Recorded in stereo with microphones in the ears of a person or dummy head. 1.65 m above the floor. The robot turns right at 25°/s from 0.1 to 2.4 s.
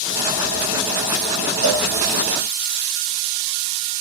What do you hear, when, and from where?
1.6 s a cowbell: 70° right (ahead or behind), 1.2 m